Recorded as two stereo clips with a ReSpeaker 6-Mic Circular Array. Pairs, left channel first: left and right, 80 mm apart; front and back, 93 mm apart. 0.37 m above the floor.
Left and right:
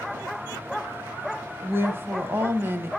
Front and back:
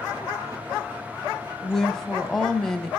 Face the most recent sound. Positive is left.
turn(degrees=-80)